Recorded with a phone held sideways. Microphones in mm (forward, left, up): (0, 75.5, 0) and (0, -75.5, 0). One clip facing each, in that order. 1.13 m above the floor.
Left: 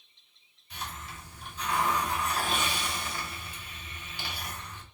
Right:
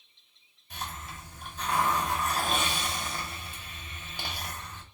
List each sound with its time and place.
0.7 s a hiss: 45° right (ahead or behind), 1.6 m